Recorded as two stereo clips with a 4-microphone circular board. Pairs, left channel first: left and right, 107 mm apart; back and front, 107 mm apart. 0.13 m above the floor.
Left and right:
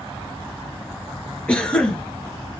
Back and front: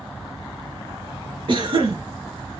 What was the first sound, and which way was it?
A cough, 15° left.